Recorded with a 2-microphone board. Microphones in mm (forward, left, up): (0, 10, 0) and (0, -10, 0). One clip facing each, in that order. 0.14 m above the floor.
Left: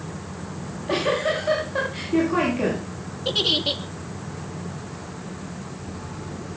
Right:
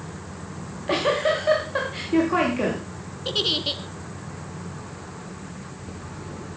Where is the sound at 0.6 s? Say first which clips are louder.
Right 1 dB; 60° right (ahead or behind), 10 m.